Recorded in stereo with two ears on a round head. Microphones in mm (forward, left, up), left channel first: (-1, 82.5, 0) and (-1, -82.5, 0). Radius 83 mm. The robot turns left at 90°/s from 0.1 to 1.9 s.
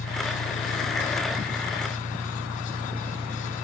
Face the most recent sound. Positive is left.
turn(degrees=-45)